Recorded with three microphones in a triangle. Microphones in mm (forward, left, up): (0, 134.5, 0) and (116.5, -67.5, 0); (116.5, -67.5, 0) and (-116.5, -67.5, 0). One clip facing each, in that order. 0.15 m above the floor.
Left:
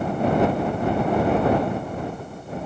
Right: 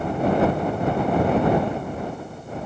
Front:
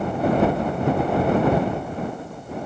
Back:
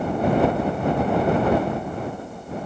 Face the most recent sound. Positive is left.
No sound to turn to.